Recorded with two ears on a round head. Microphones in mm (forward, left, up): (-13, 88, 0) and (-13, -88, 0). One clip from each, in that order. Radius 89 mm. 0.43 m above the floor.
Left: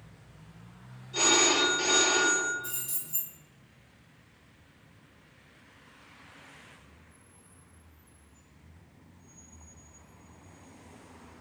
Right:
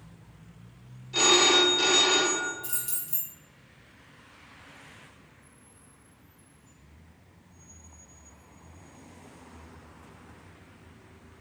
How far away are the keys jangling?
About 1.1 m.